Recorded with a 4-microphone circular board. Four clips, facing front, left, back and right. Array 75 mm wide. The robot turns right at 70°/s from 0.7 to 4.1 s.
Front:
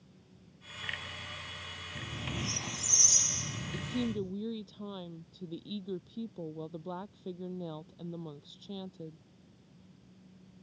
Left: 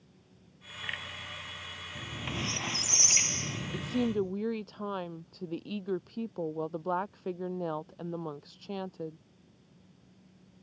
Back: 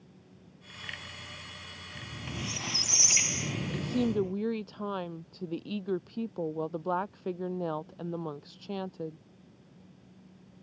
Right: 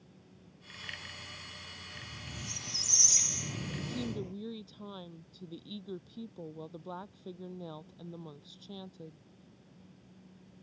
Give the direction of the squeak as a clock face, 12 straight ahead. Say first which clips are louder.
Left 10 dB, front 1 dB; 10 o'clock.